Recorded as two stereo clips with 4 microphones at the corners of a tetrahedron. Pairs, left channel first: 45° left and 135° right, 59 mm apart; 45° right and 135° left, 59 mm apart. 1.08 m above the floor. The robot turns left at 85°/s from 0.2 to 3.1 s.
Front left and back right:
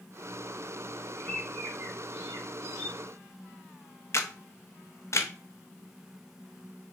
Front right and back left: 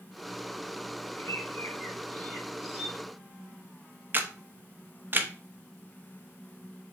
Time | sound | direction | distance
1.2 | a bird | 25° right | 4 m
4.1 | a camera shutter | 80° left | 0.8 m